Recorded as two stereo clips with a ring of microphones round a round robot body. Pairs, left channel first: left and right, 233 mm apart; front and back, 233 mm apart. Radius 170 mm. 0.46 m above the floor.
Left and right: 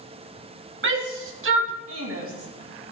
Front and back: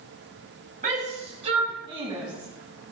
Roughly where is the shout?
Behind right.